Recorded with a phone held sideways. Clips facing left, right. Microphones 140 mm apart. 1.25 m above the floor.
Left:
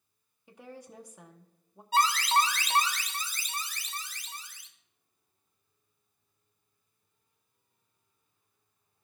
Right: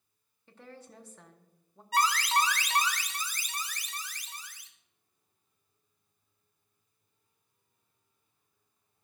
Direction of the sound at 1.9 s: 25° left (ahead or behind).